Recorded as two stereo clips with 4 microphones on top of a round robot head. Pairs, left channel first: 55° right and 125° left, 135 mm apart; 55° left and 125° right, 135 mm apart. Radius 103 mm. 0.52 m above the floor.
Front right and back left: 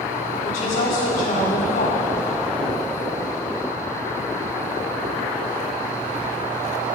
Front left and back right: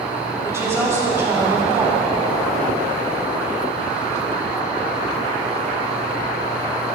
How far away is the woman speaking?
About 5 m.